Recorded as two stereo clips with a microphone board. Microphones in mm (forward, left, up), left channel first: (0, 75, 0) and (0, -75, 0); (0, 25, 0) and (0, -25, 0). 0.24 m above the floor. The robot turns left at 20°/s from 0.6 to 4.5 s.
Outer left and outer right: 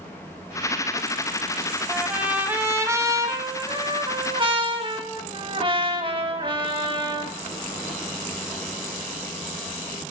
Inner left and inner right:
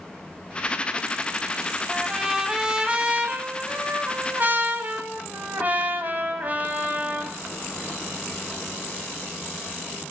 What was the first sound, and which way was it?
A trumpet, 10° right.